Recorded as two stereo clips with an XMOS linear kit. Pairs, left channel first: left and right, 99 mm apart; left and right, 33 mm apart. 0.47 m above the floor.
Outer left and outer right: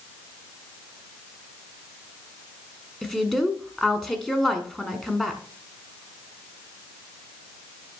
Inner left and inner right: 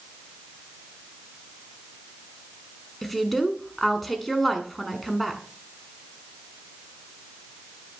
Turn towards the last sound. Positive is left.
turn(degrees=5)  # may be behind; listen again after turning